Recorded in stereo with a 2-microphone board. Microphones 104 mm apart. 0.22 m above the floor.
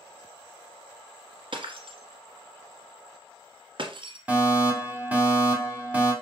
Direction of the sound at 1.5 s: 55° right (ahead or behind).